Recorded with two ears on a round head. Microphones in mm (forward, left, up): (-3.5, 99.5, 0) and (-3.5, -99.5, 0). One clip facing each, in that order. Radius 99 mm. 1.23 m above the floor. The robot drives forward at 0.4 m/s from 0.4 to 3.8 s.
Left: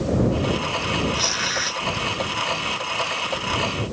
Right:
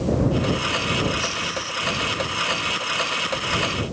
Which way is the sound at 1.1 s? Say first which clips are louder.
Even; 80° left.